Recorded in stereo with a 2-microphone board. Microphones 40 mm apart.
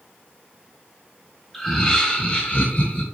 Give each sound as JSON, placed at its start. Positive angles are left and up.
{"t": 1.5, "sound": "laughter", "side_deg": 0, "distance_m": 1.4}